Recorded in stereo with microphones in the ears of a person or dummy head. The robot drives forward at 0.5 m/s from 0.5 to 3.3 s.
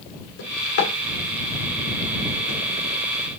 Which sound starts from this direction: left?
A drawer, at 0.4 s.